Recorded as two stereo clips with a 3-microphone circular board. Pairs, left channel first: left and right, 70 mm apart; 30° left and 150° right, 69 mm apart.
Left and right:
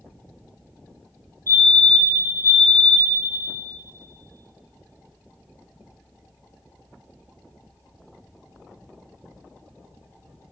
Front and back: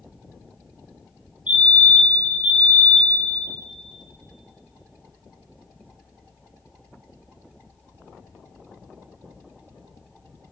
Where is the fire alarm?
140° left, 3.5 m.